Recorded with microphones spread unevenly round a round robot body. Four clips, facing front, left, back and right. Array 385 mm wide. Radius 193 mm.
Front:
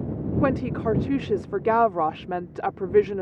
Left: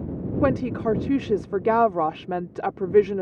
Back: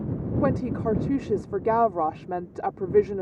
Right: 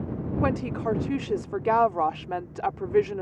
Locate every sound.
0.4 s a woman speaking: 85° left